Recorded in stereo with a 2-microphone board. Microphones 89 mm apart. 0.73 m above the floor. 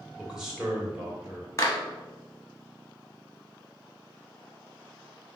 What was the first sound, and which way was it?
A man speaking, 5° right (ahead or behind).